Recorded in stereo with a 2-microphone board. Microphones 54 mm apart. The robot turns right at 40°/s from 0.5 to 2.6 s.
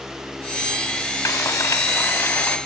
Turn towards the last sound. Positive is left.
turn(degrees=145)